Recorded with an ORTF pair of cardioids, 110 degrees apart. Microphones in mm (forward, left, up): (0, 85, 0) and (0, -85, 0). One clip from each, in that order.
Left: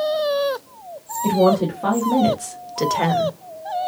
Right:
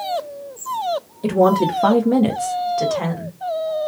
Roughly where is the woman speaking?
Ahead right.